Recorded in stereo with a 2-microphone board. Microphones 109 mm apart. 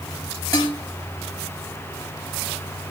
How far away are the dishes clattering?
About 5.5 m.